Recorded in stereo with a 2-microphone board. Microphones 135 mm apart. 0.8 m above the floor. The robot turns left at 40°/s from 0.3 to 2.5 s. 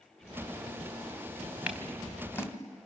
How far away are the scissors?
About 1.6 m.